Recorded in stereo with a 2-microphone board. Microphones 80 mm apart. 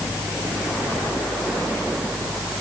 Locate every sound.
Only background noise.